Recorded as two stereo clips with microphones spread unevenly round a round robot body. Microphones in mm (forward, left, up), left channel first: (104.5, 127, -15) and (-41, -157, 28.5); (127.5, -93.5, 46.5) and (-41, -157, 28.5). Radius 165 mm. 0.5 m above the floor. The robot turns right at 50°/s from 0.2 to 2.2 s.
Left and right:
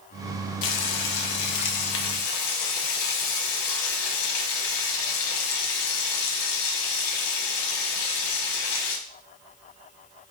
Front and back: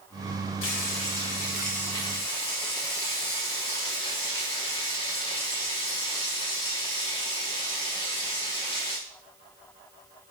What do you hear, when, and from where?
0.6 s frying: 35° left, 0.8 m; by 9.0 s 115° left, 0.8 m